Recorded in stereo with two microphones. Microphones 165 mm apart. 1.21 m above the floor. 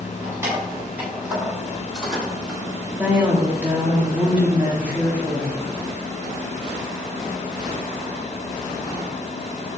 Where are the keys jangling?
15° right (ahead or behind), 4.5 m; by 2.6 s 5° left (ahead or behind), 6 m.